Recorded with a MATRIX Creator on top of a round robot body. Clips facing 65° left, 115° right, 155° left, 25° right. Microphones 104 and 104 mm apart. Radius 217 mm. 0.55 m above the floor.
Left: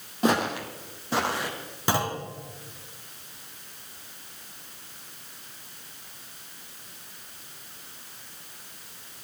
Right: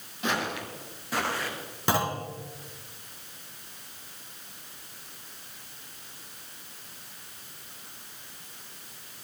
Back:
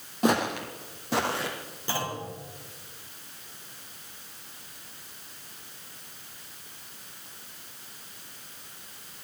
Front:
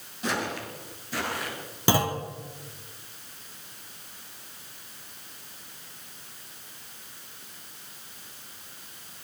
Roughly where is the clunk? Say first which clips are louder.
Even, front 7 dB; ahead.